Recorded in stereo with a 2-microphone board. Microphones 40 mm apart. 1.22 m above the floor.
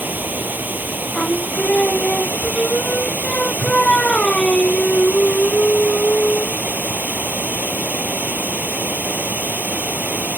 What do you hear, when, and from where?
0.0 s running water: 45° right (ahead or behind)
1.1 s singing: 20° left (ahead or behind)